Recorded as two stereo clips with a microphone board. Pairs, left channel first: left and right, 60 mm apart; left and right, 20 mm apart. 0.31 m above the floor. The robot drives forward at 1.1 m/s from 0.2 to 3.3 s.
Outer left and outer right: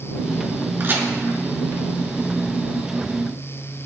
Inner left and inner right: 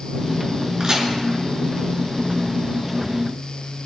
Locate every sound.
0.8 s a crack: 40° right (ahead or behind), 3 m